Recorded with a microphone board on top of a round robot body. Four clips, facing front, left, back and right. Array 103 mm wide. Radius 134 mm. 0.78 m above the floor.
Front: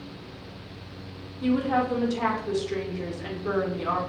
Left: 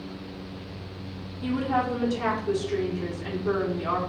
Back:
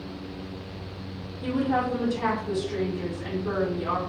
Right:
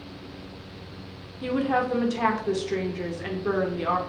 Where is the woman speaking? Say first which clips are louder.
Right 1 dB, front 1 dB; 70° right, 1.4 m.